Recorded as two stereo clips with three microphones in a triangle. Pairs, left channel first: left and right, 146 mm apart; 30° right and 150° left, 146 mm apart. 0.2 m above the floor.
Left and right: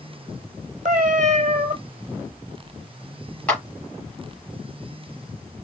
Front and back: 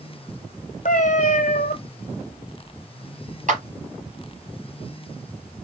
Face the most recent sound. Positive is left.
turn(degrees=170)